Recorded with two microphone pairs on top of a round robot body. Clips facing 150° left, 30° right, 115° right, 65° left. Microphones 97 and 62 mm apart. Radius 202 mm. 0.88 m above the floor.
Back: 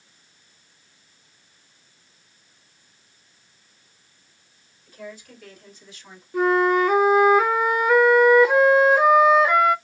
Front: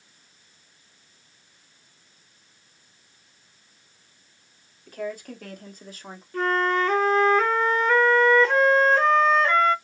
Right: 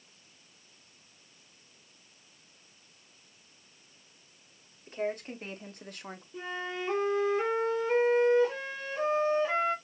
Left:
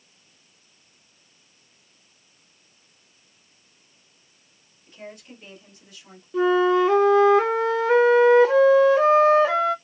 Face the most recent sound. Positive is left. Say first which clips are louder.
# back 5 dB, left 19 dB
turn(degrees=70)